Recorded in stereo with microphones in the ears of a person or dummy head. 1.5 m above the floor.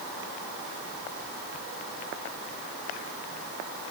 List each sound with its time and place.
Only background noise.